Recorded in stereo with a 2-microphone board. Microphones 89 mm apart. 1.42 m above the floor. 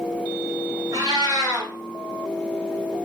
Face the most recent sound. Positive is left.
turn(degrees=-45)  # may be behind; listen again after turning